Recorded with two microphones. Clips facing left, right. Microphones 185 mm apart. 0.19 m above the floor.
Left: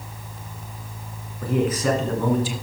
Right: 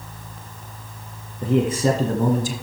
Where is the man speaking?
20° right (ahead or behind), 1.9 m; by 2.5 s 45° right (ahead or behind), 1.5 m.